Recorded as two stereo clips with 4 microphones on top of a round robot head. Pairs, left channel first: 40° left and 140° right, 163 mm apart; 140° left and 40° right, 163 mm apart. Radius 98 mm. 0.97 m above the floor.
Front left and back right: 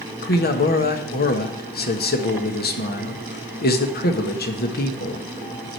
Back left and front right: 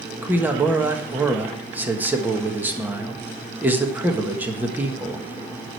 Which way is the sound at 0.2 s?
40° left.